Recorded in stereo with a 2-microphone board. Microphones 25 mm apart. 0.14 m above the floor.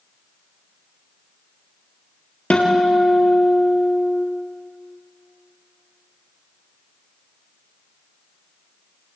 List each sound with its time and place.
2.5 s a guitar: 65° left (ahead or behind), 3 m